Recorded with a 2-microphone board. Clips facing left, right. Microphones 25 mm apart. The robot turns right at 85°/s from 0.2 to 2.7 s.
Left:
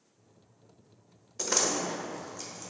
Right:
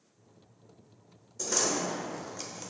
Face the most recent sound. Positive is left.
turn(degrees=-45)  # may be behind; listen again after turning